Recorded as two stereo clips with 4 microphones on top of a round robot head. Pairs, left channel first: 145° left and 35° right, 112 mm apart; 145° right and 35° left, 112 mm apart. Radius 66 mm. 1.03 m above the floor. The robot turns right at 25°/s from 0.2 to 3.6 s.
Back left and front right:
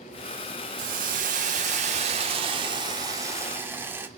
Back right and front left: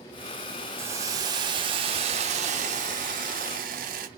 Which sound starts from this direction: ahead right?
A hiss, at 0.8 s.